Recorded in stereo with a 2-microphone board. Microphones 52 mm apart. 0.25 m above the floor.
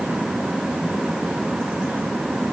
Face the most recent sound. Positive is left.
No sound to turn to.